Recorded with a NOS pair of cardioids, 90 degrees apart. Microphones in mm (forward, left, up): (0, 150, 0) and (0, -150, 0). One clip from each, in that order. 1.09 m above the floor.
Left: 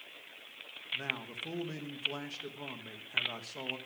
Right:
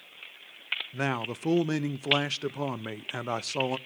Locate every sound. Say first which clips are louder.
0.9 s a man speaking: even; 70° right, 0.7 m